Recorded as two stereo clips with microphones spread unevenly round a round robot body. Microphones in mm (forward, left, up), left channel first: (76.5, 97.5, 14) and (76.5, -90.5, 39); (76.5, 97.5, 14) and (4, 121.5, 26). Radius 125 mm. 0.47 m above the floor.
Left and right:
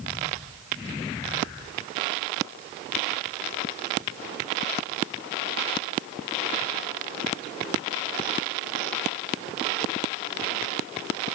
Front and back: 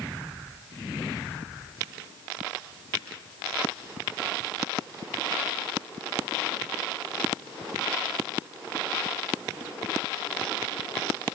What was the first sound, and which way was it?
Only background noise.